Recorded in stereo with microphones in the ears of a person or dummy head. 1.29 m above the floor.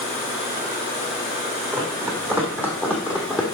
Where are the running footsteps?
15° right (ahead or behind), 3 m; by 3.5 s 5° right (ahead or behind), 2.5 m.